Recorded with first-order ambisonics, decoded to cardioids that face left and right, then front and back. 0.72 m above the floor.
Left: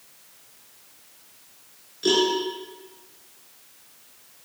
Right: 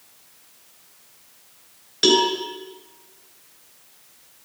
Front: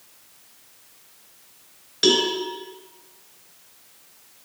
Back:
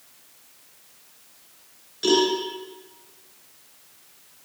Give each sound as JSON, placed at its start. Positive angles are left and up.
{"t": 2.0, "sound": "a cowbell", "azimuth_deg": -55, "distance_m": 4.5}